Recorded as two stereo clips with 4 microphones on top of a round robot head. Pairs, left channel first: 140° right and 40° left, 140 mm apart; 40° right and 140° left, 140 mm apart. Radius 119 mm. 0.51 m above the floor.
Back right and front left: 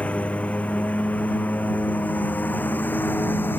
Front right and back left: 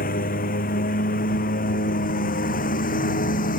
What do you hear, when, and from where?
0.0 s a lawn mower: 60° right; by 3.6 s 65° right